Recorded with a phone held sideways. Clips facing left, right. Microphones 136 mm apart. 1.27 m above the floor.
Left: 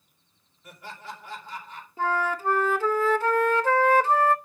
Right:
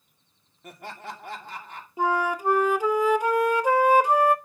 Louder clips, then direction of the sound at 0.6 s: Right 3 dB; 65° right (ahead or behind).